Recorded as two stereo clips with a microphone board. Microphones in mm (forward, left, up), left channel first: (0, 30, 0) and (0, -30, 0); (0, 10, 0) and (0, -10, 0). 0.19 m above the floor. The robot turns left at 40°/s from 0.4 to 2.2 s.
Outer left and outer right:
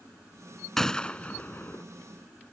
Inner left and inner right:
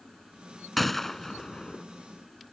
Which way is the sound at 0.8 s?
5° left (ahead or behind).